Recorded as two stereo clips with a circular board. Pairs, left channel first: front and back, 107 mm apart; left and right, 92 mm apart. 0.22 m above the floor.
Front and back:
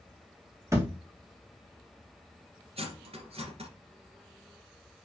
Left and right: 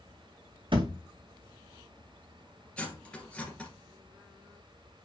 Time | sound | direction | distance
0.7 | a thud | 115° right | 2 m
2.8 | cutlery clinking | 170° left | 2.5 m